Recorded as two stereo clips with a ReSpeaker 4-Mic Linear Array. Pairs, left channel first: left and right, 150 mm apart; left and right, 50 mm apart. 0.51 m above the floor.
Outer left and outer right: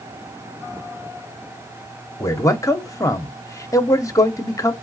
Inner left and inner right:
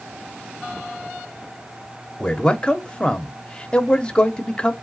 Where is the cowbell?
No cowbell in this recording.